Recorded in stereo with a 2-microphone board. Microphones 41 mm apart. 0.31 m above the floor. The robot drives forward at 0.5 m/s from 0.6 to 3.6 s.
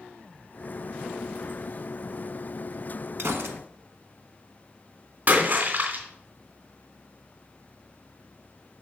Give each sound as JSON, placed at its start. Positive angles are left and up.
{"t": 3.2, "sound": "a gunshot", "side_deg": -80, "distance_m": 0.9}
{"t": 5.3, "sound": "a splash", "side_deg": -50, "distance_m": 2.5}